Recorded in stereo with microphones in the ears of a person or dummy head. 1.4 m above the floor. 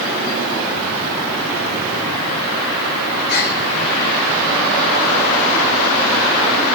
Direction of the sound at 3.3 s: 55° left (ahead or behind).